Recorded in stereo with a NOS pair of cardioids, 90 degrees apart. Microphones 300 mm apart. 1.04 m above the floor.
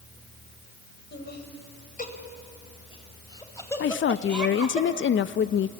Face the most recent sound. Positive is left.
turn(degrees=40)